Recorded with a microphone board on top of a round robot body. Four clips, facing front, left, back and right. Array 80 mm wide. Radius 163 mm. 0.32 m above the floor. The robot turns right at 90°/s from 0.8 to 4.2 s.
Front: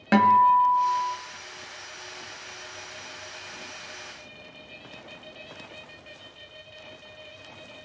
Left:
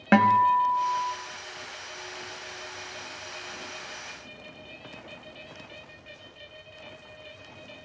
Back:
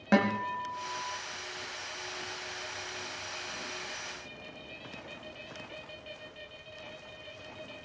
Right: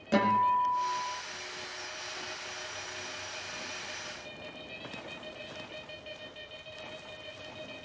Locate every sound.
0.1 s a guitar: 75° left, 1.5 m; by 1.1 s 105° left, 1.5 m